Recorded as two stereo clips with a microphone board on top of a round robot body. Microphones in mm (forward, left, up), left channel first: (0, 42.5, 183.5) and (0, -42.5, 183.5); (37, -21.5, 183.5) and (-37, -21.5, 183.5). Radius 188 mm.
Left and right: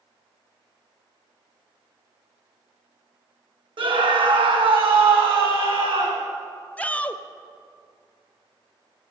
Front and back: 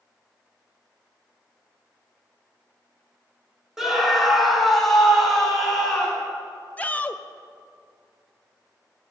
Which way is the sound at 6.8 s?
40° left.